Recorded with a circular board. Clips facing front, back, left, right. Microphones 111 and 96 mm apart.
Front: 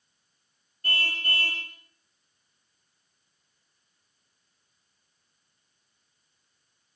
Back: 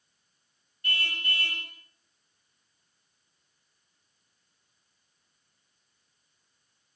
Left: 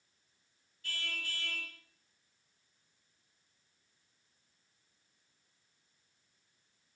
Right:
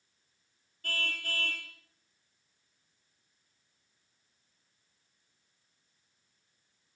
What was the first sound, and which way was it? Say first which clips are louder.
A car horn: front 2 dB, right 6 dB; 50° right.